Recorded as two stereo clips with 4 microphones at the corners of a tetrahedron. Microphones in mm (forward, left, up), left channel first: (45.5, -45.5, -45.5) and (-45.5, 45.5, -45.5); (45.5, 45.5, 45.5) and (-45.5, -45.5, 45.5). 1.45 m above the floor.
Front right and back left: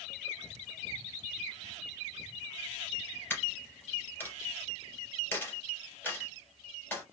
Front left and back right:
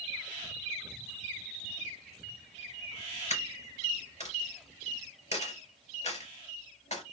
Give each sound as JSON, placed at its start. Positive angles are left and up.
{"t": 3.3, "sound": "a dropped coin", "azimuth_deg": 25, "distance_m": 3.0}